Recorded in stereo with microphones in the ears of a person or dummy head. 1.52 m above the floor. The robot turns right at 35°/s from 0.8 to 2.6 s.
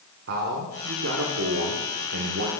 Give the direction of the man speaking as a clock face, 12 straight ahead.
4 o'clock.